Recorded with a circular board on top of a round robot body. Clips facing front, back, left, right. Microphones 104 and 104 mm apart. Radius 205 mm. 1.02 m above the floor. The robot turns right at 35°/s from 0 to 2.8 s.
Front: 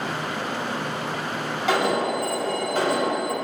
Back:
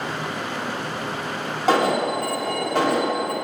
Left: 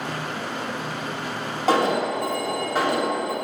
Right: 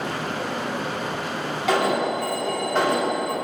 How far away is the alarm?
About 4 m.